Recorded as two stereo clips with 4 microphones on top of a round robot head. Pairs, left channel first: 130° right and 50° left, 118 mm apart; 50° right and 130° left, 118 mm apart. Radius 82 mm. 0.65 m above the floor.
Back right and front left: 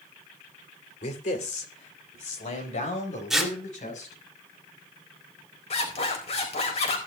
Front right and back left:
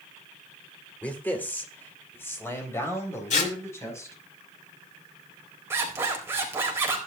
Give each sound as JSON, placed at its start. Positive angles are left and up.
{"t": 1.0, "sound": "a man speaking", "azimuth_deg": -125, "distance_m": 3.0}
{"t": 3.3, "sound": "tearing paper", "azimuth_deg": -40, "distance_m": 2.5}
{"t": 5.7, "sound": "a zipper", "azimuth_deg": -160, "distance_m": 4.0}